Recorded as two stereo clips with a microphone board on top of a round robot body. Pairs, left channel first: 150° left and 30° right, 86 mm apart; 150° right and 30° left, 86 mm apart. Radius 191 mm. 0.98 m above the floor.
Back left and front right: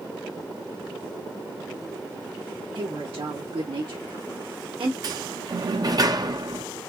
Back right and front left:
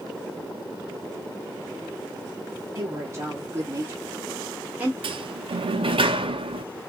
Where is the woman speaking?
25° right, 3 m; by 4.9 s 45° right, 2 m.